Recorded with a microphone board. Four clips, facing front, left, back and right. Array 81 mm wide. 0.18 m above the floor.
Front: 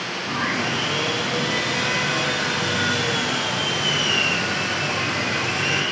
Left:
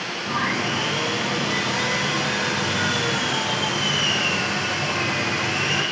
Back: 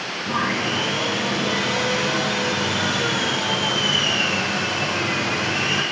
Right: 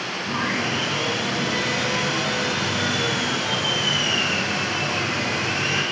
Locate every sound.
0.3 s sawing: straight behind, 4.5 m